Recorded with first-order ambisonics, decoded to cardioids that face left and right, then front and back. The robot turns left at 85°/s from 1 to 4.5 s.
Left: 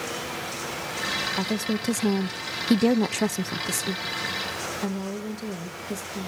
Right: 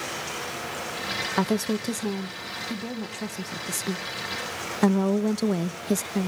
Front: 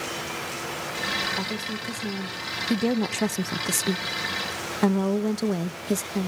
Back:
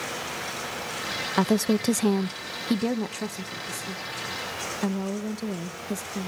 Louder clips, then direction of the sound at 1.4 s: Right 2 dB, back 6 dB; 150° right.